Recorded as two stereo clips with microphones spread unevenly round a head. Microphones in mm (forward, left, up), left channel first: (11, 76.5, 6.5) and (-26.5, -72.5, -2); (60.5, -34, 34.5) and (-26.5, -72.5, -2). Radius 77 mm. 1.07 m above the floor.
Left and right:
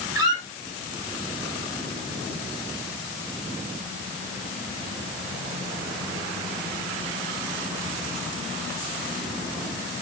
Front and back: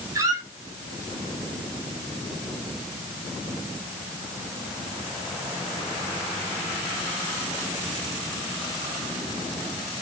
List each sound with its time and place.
0.1 s a squeak: 95° right, 0.7 m